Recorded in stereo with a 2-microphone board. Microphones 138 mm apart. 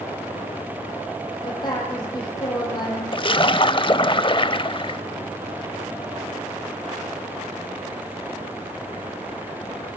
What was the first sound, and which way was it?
A woman speaking, 30° left (ahead or behind).